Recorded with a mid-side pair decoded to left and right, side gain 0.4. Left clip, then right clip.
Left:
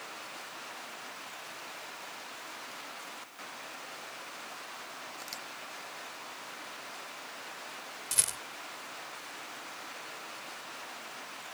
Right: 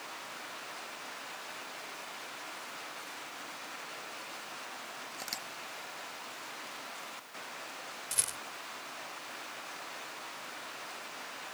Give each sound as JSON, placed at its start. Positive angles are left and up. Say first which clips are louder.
{"t": 5.1, "sound": "a camera shutter", "louder": "right 5 dB", "azimuth_deg": -35}
{"t": 8.1, "sound": "a rattle", "louder": "left 4 dB", "azimuth_deg": 30}